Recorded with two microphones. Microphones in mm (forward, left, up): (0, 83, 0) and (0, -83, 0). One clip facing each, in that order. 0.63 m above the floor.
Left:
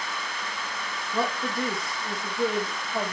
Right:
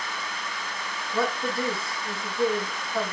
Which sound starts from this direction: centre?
A woman speaking, at 1.1 s.